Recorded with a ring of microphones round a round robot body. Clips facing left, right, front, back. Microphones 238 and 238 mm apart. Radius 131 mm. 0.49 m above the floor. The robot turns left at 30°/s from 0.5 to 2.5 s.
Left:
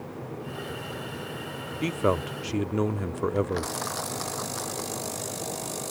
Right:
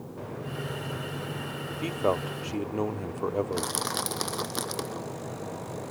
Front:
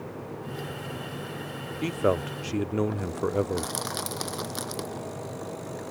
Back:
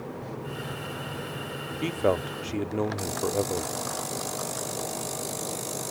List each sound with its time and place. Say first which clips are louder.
1.8 s a man speaking: left 2 dB, even; 80° left; by 3.7 s 60° left
3.5 s crushing: left 1 dB, even; 50° right